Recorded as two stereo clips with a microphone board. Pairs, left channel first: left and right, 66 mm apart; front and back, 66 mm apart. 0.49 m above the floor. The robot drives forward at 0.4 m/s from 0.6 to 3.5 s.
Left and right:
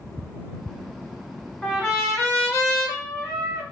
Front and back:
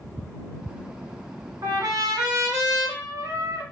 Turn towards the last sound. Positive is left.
turn(degrees=170)